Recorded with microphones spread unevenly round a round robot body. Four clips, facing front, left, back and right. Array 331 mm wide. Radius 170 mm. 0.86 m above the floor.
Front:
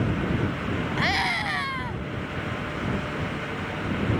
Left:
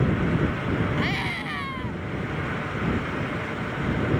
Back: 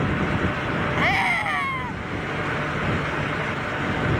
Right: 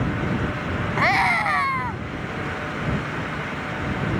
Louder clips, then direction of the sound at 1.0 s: Right 8 dB, back 3 dB; 105° right.